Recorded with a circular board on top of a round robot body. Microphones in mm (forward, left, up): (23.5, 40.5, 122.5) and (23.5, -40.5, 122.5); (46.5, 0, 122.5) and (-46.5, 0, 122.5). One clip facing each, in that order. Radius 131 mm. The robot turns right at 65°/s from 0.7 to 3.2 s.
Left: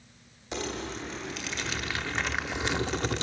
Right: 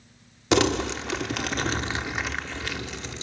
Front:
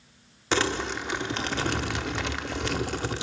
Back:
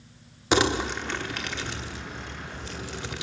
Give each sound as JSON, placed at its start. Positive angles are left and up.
{"t": 0.5, "sound": "crumpling", "azimuth_deg": -105, "distance_m": 0.6}